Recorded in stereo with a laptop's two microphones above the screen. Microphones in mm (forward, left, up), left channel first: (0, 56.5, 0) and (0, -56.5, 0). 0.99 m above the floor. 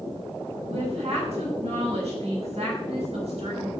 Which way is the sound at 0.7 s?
65° right (ahead or behind).